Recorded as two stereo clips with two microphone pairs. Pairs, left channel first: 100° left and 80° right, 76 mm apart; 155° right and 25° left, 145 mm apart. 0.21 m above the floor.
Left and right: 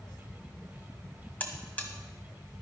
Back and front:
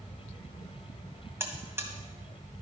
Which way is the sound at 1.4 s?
70° left.